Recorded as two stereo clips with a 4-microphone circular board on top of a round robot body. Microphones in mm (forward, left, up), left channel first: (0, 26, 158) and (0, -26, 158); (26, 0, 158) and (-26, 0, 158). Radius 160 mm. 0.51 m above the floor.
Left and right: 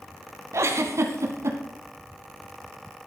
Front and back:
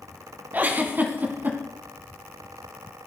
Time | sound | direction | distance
0.5 | a giggle | 125° right | 1.6 m